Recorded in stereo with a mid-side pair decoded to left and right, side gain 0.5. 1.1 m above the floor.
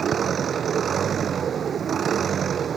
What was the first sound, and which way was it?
An engine running, 50° right.